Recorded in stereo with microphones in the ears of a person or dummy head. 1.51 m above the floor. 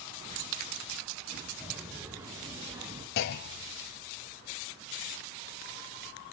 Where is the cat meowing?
I don't hear a cat meowing.